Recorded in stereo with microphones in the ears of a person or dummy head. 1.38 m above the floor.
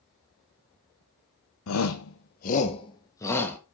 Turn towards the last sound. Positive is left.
turn(degrees=10)  # may be behind; listen again after turning